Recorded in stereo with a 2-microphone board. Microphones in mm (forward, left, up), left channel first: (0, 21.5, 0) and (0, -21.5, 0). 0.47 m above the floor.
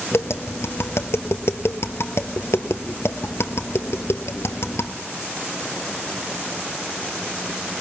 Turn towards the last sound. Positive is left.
turn(degrees=75)  # may be behind; listen again after turning